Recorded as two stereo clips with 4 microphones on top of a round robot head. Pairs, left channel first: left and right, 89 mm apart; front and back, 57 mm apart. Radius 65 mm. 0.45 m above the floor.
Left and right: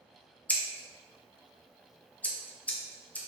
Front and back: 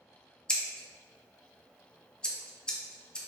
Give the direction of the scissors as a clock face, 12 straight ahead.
10 o'clock.